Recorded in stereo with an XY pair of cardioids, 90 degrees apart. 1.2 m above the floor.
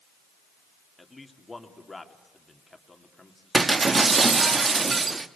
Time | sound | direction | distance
1.0 | a man speaking | 20° left | 2.5 m
3.5 | breaking glass | 35° right | 1.2 m